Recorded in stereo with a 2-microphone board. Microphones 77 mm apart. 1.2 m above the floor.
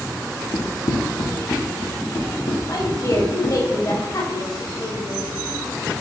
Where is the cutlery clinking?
I don't hear cutlery clinking.